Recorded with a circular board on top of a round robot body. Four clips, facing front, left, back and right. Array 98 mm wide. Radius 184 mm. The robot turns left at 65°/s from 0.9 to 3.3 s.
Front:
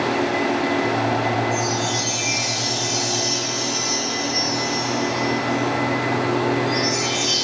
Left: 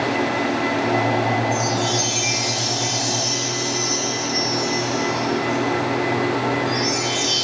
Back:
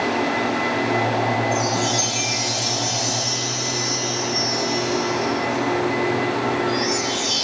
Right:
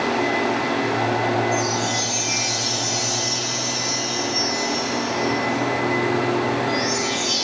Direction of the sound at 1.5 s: 150° left.